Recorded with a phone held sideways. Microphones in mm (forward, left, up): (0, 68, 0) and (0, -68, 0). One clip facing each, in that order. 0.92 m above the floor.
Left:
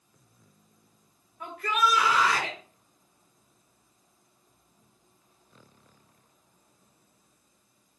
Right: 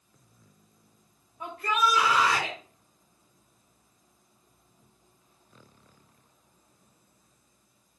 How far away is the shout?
About 5.5 m.